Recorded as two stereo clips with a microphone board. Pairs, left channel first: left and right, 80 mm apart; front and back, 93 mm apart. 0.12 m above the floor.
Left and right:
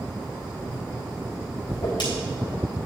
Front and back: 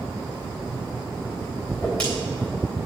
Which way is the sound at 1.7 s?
75° left.